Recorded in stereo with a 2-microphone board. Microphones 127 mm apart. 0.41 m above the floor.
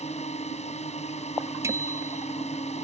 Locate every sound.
0.0 s a drone: 60° left (ahead or behind)
1.6 s a bicycle bell: 20° right (ahead or behind)